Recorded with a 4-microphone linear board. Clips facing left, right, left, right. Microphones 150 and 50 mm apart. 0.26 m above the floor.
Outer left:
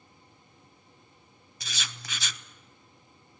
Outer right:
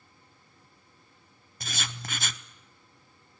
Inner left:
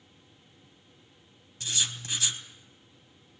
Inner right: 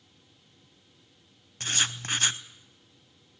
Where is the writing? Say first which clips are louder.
Outer right 4 dB, inner right 4 dB; 50° right (ahead or behind), 0.7 m.